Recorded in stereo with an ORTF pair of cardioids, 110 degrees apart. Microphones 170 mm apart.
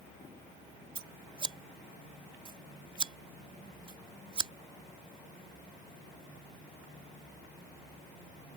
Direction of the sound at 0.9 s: 30° right.